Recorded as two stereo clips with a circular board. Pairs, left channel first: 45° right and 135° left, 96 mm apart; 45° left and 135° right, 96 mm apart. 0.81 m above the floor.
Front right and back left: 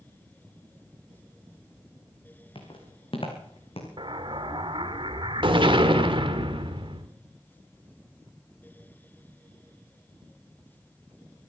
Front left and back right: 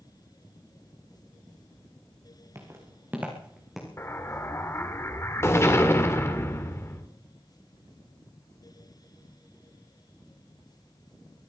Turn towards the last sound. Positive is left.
turn(degrees=105)